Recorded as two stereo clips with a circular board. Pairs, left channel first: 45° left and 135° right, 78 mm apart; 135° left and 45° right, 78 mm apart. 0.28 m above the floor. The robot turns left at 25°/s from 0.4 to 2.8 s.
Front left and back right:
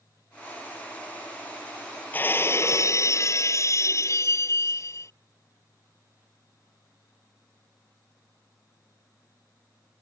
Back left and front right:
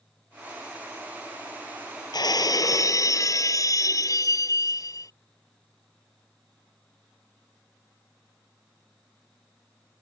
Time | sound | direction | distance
2.1 | breaking glass | 110° left | ?